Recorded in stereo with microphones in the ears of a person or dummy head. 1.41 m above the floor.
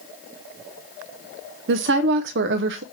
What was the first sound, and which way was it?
A woman speaking, 70° right (ahead or behind).